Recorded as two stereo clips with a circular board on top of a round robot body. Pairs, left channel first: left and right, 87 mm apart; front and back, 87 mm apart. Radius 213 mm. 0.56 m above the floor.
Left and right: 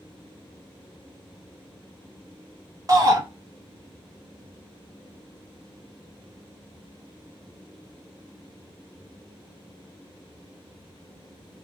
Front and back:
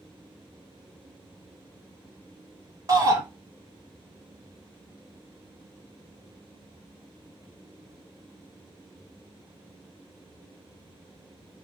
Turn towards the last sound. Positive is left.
turn(degrees=-135)